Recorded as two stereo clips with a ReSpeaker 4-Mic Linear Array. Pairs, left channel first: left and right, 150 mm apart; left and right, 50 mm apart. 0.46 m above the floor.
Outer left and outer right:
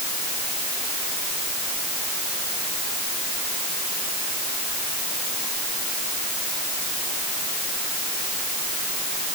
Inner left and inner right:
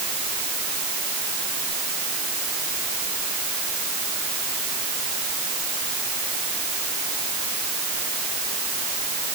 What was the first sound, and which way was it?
Only background noise.